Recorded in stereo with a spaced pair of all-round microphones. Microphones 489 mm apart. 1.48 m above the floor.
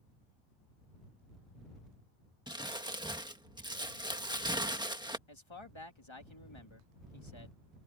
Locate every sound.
2.5 s crumpling: 10° right (ahead or behind)
5.3 s a man speaking: 70° left (ahead or behind)